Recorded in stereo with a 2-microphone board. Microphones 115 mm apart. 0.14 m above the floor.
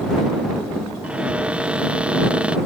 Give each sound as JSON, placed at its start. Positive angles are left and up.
{"t": 1.0, "sound": "a cupboard door", "side_deg": -10}